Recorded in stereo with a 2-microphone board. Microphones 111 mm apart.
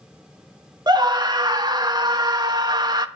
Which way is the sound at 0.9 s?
40° right (ahead or behind).